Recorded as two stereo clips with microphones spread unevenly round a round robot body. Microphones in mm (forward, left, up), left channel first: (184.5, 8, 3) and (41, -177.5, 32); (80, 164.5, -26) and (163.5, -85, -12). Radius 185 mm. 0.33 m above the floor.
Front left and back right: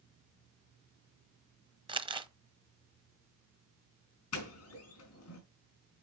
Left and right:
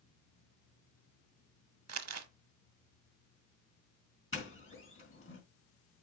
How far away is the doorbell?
About 3.5 m.